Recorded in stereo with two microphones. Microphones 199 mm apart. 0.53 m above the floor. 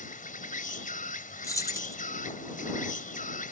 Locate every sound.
0.0 s an insect: 45° left (ahead or behind)
1.4 s keys jangling: 15° left (ahead or behind)